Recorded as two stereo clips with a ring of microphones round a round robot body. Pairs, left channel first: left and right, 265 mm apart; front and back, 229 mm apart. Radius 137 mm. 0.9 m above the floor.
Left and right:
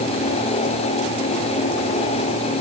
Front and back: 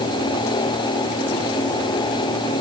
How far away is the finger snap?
No finger snap in this recording.